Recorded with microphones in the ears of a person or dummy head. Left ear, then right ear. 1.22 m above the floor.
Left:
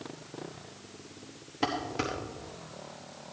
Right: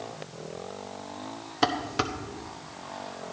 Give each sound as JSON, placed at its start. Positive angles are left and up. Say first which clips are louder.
{"t": 1.6, "sound": "dishes clattering", "louder": "right 5 dB", "side_deg": -25, "distance_m": 1.0}